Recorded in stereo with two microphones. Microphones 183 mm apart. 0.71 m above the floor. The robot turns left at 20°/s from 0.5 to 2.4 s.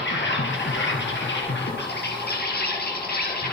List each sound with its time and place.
0.0 s an insect: 100° left, 4.5 m; by 3.5 s 60° left, 4.5 m